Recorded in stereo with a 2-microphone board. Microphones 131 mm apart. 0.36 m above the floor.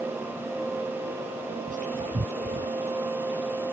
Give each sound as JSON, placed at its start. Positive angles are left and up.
{"t": 1.7, "sound": "whispering", "side_deg": -75}